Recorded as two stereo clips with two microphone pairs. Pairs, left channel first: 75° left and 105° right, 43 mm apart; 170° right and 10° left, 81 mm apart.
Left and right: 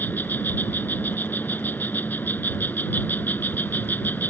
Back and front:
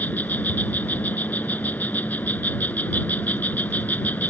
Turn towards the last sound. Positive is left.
turn(degrees=115)